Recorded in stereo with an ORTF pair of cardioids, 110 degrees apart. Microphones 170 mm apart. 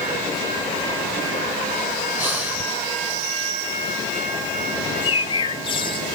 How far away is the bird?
About 1.0 m.